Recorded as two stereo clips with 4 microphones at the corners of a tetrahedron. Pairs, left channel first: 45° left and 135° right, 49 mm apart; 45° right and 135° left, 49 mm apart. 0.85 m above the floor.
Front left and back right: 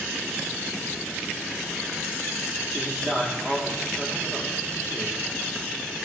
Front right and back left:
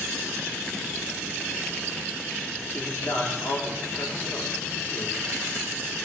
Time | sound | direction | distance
2.7 | a man speaking | 65° right | 2.5 m